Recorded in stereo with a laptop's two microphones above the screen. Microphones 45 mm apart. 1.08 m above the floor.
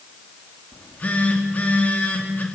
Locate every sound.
0.7 s a phone buzzing: 40° left (ahead or behind), 2.5 m